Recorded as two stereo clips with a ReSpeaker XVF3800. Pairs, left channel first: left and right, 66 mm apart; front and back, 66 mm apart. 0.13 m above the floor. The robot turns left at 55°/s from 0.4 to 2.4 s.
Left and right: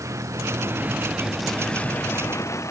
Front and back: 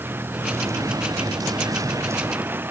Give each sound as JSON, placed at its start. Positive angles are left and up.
{"t": 0.0, "sound": "a vehicle", "azimuth_deg": -125}